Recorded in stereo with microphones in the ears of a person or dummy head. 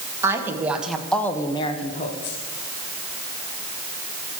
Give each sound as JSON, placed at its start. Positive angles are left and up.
{"t": 0.2, "sound": "a woman speaking", "side_deg": -15, "distance_m": 2.5}